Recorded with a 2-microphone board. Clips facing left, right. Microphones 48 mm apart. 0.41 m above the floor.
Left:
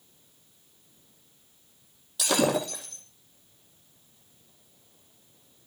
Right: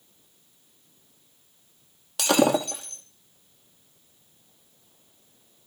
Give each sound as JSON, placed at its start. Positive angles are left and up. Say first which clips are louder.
{"t": 2.2, "sound": "breaking glass", "louder": "right 4 dB", "side_deg": -85, "distance_m": 5.0}